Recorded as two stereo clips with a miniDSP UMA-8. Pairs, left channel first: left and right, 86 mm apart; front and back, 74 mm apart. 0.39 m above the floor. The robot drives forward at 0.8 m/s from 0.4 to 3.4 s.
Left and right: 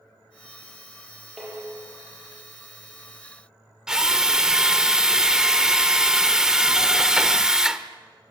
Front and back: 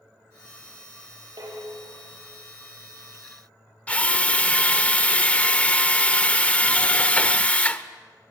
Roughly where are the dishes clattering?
Behind.